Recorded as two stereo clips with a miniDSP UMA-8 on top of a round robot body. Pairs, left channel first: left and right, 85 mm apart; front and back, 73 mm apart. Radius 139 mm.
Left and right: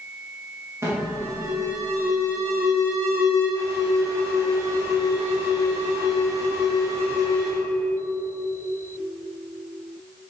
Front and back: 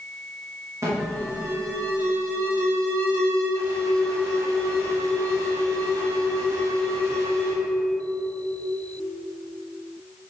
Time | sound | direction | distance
0.8 | an alarm | 140° right | 3 m